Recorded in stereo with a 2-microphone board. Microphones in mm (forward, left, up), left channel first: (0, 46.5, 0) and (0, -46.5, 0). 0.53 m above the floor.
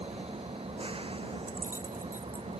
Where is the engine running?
85° right.